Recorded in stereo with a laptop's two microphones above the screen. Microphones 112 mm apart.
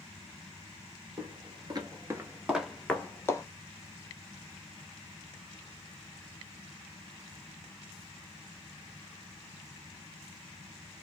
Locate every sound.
1.2 s footsteps: 50° right (ahead or behind), 1.4 m; by 3.4 s 30° left (ahead or behind), 1.1 m